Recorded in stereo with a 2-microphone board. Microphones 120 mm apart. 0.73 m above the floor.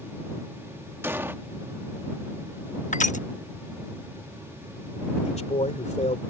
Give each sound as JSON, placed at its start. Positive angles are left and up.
{"t": 1.0, "sound": "an explosion", "side_deg": -15}
{"t": 2.9, "sound": "crushing", "side_deg": 80}
{"t": 5.2, "sound": "a man speaking", "side_deg": 60}